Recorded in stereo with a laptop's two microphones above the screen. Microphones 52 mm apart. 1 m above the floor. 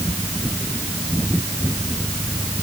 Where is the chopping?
No chopping in this recording.